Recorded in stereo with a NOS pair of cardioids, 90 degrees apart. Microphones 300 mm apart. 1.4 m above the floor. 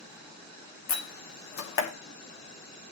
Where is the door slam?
70° left, 2.5 m.